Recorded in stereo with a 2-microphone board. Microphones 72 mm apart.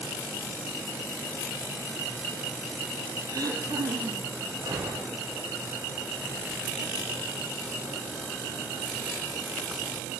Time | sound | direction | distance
3.3 | throat clearing | 65° right (ahead or behind) | 4.5 m
4.6 | a gunshot | 80° right | 7.5 m